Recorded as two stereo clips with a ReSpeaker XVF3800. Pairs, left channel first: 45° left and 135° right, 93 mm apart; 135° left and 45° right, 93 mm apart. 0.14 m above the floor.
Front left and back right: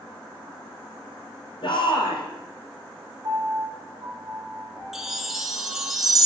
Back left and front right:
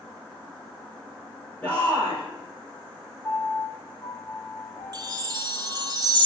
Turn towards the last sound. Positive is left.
turn(degrees=-50)